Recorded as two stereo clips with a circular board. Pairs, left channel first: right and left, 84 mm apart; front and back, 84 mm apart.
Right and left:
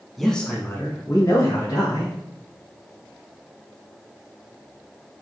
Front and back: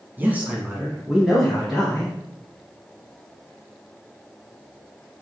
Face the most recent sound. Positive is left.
turn(degrees=-85)